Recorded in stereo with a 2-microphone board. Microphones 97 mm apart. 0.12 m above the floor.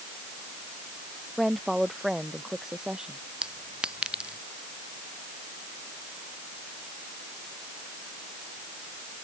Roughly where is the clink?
Centre.